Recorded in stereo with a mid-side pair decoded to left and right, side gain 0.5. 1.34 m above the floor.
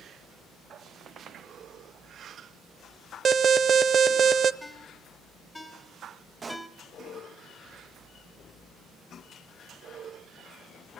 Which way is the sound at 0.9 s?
55° right.